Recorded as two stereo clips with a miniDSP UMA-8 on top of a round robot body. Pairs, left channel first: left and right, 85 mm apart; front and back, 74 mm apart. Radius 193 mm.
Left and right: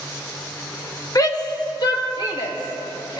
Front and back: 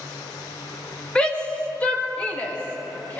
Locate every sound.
1.1 s a shout: 70° left, 1.6 m